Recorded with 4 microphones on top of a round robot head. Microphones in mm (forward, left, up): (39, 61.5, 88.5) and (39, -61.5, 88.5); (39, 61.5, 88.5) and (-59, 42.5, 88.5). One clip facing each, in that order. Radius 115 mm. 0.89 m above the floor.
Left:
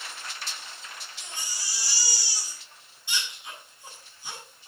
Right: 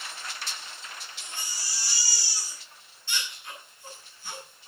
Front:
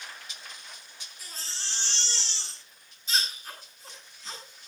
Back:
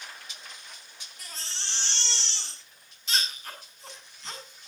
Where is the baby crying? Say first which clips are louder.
Even, back 1 dB; 165° left, 8 m.